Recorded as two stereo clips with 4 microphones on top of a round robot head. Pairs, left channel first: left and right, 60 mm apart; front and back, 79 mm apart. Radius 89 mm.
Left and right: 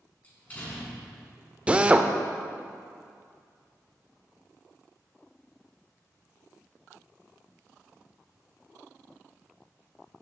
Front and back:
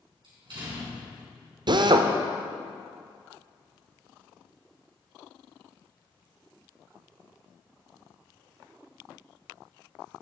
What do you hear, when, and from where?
0.2 s a door slam: 155° left, 4 m
1.7 s a drill: 160° right, 0.7 m